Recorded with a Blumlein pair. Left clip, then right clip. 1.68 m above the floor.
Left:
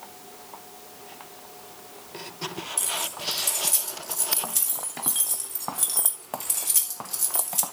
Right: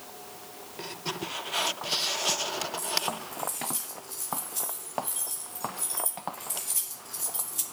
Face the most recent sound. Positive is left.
turn(degrees=65)